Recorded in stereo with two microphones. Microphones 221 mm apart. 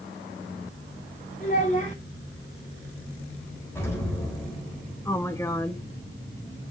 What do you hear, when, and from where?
1.4 s a child speaking: 35° left (ahead or behind), 4.5 m
3.8 s an explosion: 10° left (ahead or behind), 3.5 m
5.0 s a woman speaking: 10° left (ahead or behind), 0.8 m